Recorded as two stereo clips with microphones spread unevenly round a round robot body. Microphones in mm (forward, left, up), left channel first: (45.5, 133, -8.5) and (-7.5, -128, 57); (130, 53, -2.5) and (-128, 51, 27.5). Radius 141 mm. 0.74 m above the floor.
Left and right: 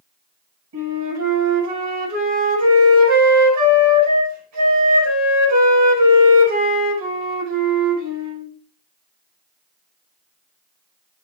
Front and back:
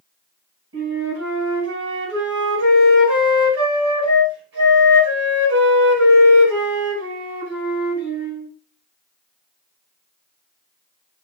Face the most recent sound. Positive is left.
turn(degrees=-135)